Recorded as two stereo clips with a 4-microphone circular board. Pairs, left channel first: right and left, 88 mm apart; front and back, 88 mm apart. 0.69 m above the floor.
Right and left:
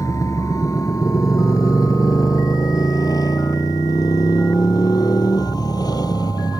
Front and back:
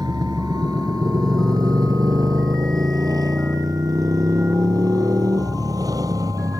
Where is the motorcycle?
140° right; by 6.6 s 130° right.